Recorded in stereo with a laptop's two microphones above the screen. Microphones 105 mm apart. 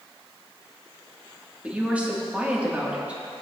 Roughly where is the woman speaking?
Centre.